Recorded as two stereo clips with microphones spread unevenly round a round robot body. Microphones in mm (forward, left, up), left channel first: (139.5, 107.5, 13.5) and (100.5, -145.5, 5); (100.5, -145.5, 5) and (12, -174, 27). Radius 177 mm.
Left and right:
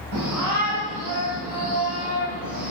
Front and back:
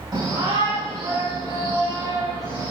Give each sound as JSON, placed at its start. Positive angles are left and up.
{"t": 0.1, "sound": "a shout", "azimuth_deg": -115, "distance_m": 6.5}